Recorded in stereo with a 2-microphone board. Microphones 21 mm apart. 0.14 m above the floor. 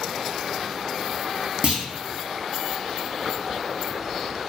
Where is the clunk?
55° right (ahead or behind), 0.6 m.